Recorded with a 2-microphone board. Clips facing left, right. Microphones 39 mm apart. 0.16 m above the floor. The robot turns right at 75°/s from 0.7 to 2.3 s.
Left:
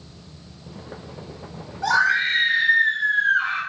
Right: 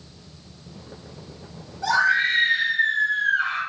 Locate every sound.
1.8 s a scream: 25° left (ahead or behind), 1.8 m